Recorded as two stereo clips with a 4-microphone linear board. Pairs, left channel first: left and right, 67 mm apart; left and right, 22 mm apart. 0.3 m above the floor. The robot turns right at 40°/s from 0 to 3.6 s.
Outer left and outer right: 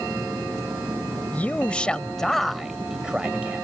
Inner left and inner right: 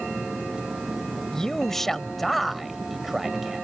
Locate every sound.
1.3 s a man speaking: 130° left; by 3.6 s 140° right